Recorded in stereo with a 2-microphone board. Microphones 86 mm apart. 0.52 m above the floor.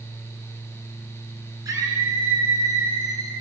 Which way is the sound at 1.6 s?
35° right (ahead or behind).